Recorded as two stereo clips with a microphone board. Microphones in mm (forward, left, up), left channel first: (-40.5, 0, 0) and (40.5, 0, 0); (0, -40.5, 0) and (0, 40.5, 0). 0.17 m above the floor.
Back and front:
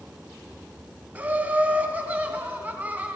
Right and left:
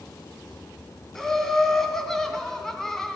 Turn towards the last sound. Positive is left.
turn(degrees=-15)